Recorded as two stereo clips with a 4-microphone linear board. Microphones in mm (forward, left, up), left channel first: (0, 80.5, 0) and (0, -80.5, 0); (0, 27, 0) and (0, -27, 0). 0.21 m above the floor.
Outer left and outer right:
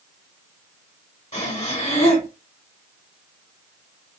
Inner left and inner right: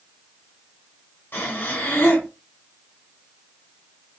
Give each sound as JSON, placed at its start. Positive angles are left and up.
{"t": 1.3, "sound": "breathing", "side_deg": 45, "distance_m": 1.9}